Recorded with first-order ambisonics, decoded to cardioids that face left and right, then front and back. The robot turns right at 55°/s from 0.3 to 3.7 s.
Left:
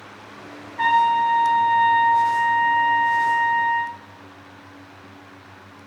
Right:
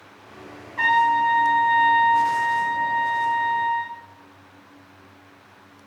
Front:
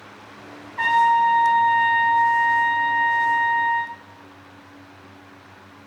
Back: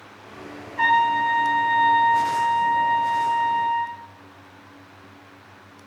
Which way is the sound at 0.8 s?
100° right.